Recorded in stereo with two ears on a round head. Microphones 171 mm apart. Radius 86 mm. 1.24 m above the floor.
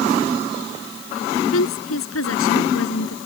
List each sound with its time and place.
1.5 s a woman speaking: 85° left